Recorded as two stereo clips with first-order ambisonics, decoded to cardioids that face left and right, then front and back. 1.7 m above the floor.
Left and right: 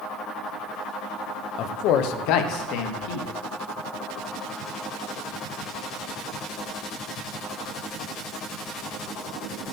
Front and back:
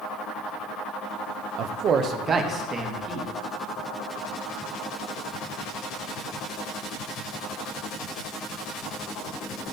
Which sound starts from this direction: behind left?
A man speaking, at 1.6 s.